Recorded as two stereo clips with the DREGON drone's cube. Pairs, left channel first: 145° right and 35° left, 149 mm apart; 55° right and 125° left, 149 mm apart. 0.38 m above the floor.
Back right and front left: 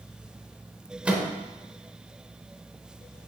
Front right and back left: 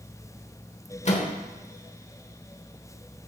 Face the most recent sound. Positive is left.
turn(degrees=-45)